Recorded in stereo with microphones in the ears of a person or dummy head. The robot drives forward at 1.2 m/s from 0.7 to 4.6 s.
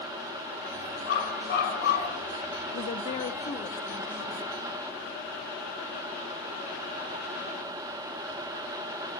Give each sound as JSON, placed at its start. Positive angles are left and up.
{"t": 1.1, "sound": "a dog barking", "side_deg": 60, "distance_m": 7.0}
{"t": 2.7, "sound": "a woman speaking", "side_deg": 35, "distance_m": 1.2}